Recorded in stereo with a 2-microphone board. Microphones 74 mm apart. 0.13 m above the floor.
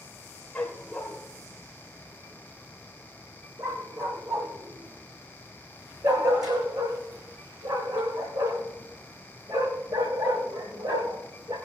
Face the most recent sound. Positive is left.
turn(degrees=-75)  # may be behind; listen again after turning